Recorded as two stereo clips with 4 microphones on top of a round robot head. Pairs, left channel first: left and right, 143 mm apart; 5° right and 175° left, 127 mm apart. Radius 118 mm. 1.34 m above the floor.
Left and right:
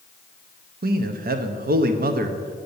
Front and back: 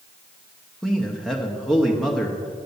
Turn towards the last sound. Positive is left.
turn(degrees=-95)